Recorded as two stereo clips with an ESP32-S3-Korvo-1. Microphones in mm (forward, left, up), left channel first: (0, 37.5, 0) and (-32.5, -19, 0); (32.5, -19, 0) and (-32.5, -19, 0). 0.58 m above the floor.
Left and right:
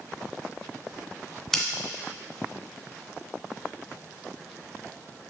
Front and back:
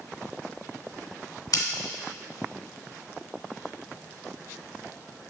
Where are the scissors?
25° right, 1.3 m.